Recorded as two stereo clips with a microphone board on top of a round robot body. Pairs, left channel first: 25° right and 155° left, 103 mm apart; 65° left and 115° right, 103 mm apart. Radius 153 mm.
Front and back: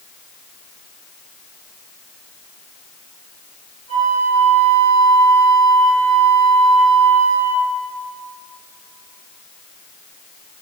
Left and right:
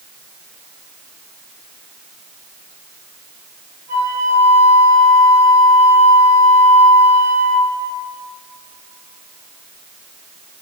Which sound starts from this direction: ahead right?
A flute, at 3.9 s.